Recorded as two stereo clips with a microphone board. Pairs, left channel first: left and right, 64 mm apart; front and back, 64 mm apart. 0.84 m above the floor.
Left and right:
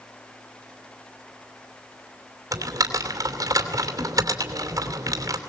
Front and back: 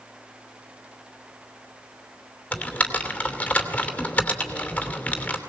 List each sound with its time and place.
2.5 s typing on a keyboard: 70° right, 2.5 m